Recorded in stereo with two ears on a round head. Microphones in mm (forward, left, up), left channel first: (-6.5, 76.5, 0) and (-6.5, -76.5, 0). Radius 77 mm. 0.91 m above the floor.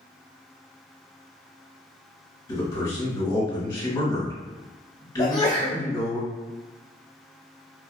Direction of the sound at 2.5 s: 20° left (ahead or behind).